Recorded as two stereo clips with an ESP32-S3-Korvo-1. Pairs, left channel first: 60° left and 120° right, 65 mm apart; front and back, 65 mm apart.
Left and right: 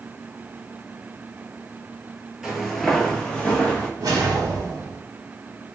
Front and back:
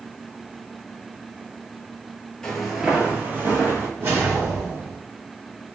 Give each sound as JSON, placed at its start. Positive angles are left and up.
{"t": 2.4, "sound": "footsteps", "azimuth_deg": -50, "distance_m": 0.7}
{"t": 4.0, "sound": "a whoosh", "azimuth_deg": -135, "distance_m": 1.1}